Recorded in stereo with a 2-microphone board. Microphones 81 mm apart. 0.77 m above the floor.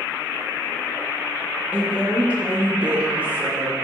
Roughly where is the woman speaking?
Centre.